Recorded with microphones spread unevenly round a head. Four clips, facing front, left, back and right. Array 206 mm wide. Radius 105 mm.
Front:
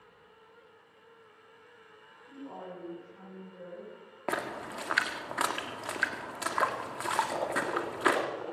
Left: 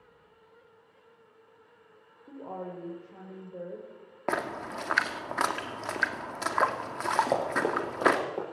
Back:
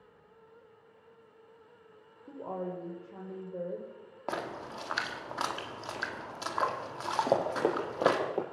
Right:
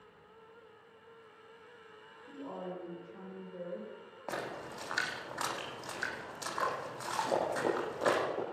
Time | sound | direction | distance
2.3 | a woman speaking | 155° left | 4.5 m
4.3 | a splash | 65° left | 2 m
7.3 | running footsteps | 145° left | 6.5 m